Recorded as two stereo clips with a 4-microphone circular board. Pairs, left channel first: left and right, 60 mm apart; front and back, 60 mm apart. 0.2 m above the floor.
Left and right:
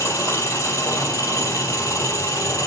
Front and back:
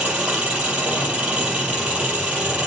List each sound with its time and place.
0.0 s an engine running: 105° left, 5 m